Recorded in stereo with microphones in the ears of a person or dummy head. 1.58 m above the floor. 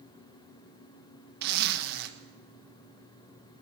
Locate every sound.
1.4 s a zipper: 60° right (ahead or behind), 1.2 m